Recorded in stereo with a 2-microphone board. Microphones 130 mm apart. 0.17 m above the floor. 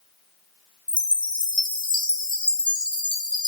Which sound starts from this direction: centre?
A chime, at 0.9 s.